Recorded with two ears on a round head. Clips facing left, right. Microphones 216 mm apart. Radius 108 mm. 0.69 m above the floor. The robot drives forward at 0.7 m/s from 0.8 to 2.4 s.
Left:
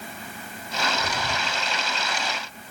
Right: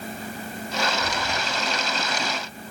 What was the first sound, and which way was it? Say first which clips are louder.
Breathing: right 1 dB; 10° left (ahead or behind).